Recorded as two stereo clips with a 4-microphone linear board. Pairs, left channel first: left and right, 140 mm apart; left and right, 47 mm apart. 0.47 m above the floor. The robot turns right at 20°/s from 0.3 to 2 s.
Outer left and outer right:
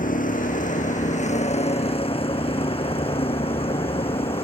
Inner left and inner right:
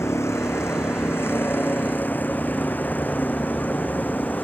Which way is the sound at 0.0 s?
100° left.